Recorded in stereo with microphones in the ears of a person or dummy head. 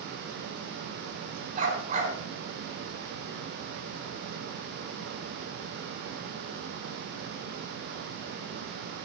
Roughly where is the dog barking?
Right.